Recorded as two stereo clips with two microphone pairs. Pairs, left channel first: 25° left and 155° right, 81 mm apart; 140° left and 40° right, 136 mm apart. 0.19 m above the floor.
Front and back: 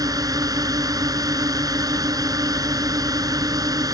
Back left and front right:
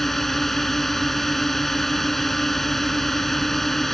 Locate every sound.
0.0 s a drone: 130° right